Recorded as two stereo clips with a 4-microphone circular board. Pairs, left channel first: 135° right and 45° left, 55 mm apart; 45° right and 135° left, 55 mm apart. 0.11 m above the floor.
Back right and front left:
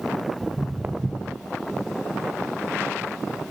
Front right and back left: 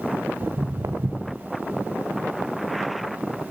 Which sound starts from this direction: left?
Footsteps, at 0.4 s.